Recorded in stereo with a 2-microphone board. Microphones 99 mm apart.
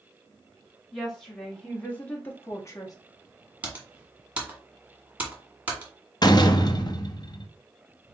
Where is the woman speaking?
Centre (ahead or behind), 2 m; by 3.0 s 40° left (ahead or behind), 1.0 m.